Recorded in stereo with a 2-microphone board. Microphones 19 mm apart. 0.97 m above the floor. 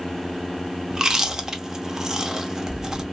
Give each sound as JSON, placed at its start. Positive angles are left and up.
{"t": 0.9, "sound": "chewing", "side_deg": -30, "distance_m": 0.6}